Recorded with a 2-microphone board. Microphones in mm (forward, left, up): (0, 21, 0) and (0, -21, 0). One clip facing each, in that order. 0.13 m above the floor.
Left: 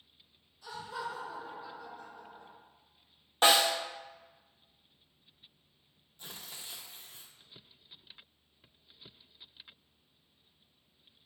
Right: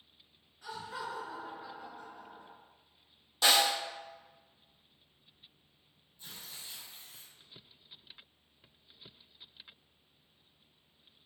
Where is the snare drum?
45° left (ahead or behind), 0.9 m.